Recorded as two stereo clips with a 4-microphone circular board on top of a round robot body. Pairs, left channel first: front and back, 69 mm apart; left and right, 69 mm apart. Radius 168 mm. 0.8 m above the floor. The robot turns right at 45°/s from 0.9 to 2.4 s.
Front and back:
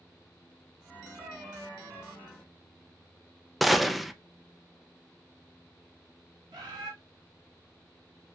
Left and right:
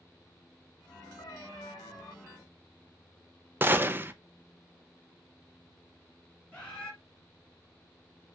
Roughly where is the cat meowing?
Left.